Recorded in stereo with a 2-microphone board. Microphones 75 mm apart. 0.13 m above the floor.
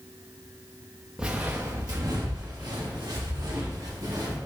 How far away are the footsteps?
About 0.6 m.